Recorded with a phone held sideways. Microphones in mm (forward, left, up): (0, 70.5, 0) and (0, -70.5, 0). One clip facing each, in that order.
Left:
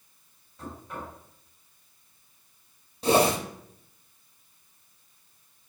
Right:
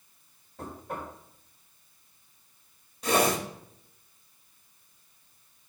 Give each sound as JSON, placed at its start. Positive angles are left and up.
{"t": 0.6, "sound": "knocking", "side_deg": -60, "distance_m": 4.0}
{"t": 3.0, "sound": "a whoosh", "side_deg": 30, "distance_m": 1.3}